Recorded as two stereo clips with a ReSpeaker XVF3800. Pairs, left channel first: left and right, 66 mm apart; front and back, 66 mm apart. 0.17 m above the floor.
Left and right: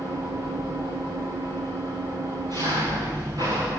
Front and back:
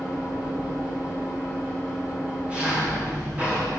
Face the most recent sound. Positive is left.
turn(degrees=-105)